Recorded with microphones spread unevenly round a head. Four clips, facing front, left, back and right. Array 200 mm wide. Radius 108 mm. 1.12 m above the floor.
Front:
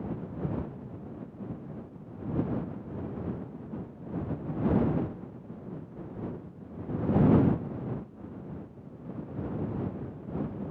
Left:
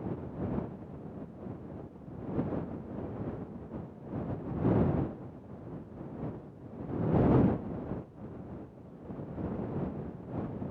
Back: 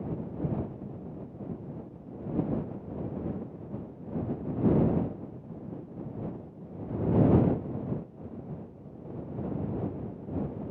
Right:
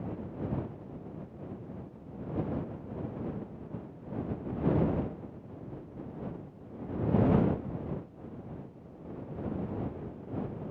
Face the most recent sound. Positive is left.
No sound to turn to.